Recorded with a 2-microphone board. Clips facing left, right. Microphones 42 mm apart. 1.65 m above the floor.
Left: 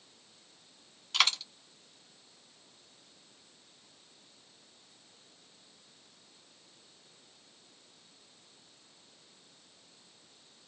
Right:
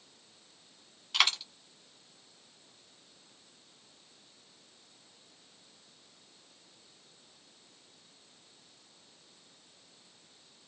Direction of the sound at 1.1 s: 10° right (ahead or behind).